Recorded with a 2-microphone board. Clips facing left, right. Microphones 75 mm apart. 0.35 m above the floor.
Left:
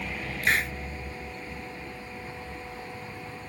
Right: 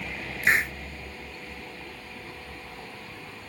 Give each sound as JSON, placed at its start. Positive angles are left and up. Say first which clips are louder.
{"t": 0.4, "sound": "a hiss", "louder": "right 3 dB", "side_deg": -25}